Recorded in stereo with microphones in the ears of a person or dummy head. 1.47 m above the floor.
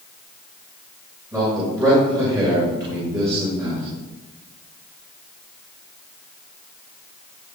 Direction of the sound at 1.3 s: 25° right (ahead or behind).